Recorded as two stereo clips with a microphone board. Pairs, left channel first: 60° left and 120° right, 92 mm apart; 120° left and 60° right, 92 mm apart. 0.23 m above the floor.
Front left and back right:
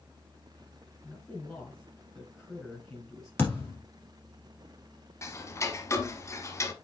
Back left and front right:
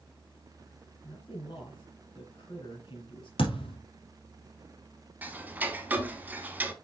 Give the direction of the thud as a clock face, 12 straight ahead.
8 o'clock.